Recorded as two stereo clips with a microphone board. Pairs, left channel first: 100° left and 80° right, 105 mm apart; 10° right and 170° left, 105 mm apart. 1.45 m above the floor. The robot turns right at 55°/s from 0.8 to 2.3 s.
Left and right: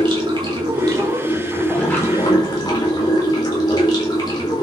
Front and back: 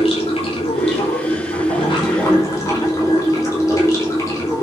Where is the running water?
30° right, 5.5 m; by 4.6 s 50° left, 5.5 m.